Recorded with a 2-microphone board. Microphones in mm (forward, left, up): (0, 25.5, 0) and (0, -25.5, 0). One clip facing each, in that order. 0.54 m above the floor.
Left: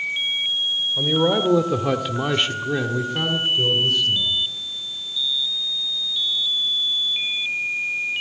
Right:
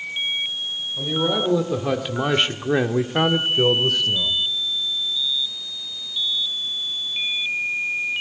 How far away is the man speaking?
About 1.6 m.